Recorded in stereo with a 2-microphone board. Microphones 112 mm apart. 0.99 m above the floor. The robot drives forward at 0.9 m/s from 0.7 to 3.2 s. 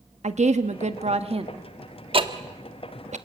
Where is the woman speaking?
85° right, 1.1 m; by 1.5 s 55° right (ahead or behind), 1.4 m.